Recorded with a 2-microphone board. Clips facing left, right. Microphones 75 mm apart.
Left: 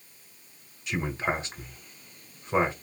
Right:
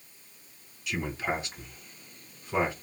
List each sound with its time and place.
0.9 s a man speaking: 30° left (ahead or behind), 1.9 m